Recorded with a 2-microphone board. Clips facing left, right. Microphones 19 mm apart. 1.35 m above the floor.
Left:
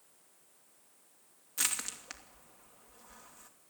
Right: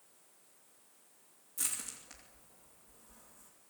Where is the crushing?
50° left (ahead or behind), 2.5 m.